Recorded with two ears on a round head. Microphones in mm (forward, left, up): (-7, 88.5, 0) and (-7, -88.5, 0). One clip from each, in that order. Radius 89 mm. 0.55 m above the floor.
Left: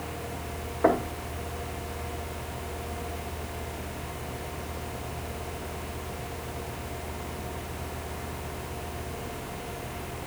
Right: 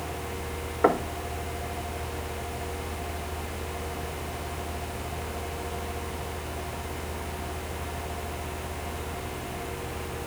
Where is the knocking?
65° right (ahead or behind), 1.0 m.